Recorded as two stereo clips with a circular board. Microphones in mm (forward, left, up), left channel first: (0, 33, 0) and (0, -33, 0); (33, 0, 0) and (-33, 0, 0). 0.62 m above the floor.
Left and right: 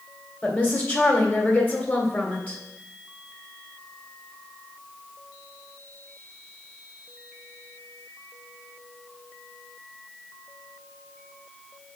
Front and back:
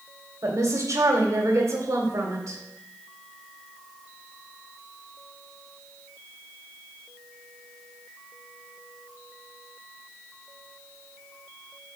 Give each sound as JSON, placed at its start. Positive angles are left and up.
{"t": 0.4, "sound": "a woman speaking", "azimuth_deg": 150, "distance_m": 1.9}